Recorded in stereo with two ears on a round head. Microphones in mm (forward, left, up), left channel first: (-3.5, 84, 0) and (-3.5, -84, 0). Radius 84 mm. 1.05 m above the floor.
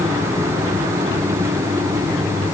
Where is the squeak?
I don't hear a squeak.